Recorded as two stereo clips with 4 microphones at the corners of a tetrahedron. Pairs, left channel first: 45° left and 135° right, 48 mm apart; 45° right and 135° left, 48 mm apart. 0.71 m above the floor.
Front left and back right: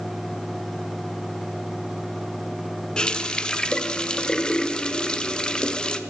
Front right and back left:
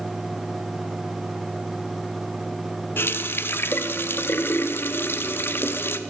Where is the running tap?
25° right, 0.6 m.